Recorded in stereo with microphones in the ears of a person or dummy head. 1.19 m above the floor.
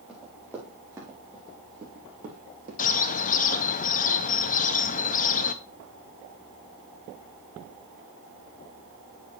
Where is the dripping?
I don't hear dripping.